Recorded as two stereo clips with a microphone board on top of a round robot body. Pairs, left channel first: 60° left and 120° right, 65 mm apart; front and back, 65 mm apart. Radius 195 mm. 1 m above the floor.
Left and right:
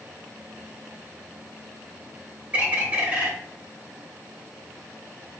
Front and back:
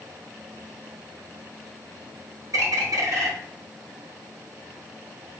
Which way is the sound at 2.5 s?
Straight behind.